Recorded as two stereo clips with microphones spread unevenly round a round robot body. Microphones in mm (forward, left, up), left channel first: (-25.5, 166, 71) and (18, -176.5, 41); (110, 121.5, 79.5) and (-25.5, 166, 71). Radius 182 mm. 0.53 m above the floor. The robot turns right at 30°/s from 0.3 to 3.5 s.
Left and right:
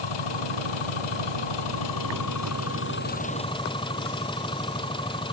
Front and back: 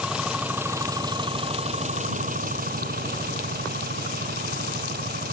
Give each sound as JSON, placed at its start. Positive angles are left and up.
{"t": 0.0, "sound": "an engine running", "azimuth_deg": 80}